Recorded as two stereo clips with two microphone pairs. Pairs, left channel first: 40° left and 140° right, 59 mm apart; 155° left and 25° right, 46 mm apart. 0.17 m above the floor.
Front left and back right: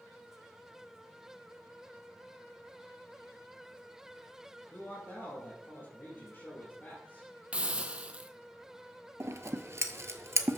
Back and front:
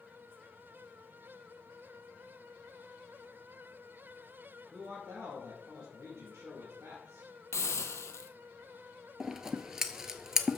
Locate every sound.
4.7 s a man speaking: 20° right, 3 m
7.5 s a hiss: 145° left, 0.8 m
9.2 s scissors: 100° right, 0.8 m